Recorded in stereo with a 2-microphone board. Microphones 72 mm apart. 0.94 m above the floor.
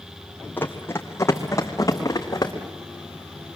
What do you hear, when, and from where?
0.6 s running footsteps: 25° left (ahead or behind), 2.5 m; by 2.5 s 50° left (ahead or behind), 4 m